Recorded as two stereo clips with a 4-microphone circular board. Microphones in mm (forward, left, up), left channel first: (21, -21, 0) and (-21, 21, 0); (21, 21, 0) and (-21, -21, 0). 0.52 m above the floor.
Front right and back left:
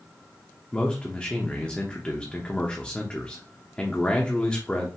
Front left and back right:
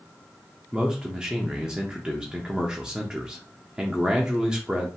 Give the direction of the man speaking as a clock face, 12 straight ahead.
3 o'clock.